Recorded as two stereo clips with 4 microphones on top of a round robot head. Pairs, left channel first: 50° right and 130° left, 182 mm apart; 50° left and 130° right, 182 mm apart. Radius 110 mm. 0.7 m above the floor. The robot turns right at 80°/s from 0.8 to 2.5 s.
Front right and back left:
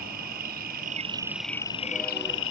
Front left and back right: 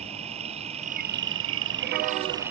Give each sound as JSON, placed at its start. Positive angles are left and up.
{"t": 0.0, "sound": "an insect", "azimuth_deg": 170}